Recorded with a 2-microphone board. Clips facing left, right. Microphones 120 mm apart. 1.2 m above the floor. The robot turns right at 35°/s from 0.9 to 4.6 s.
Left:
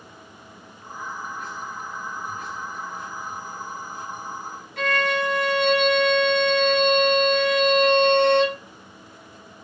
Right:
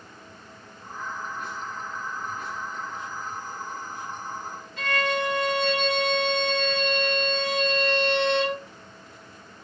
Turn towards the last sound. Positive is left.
turn(degrees=70)  # may be behind; listen again after turning